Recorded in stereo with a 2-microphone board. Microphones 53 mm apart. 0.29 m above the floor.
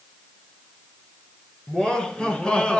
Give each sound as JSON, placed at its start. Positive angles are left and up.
{"t": 1.7, "sound": "laughter", "side_deg": 15, "distance_m": 4.5}